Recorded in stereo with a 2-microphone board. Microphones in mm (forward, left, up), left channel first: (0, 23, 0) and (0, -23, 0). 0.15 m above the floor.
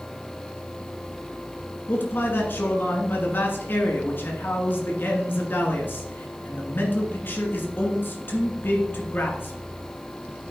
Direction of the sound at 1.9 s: 50° left (ahead or behind).